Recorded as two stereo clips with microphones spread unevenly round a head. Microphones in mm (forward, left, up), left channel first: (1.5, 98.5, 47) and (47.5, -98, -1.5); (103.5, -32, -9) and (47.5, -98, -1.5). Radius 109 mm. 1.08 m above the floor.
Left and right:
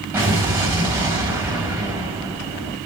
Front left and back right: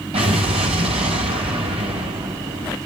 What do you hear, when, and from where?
0.1 s an explosion: 155° right, 4.5 m